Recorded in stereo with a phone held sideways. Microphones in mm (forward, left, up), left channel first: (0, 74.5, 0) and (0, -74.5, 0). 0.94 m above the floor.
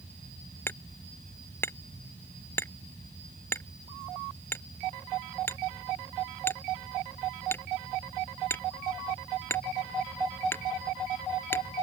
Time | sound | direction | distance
0.7 | hammering | 15° left (ahead or behind) | ?